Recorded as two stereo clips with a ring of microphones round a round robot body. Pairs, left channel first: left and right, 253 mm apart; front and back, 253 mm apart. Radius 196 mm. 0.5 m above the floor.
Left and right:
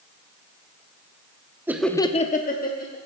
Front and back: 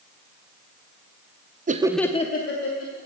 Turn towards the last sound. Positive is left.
turn(degrees=35)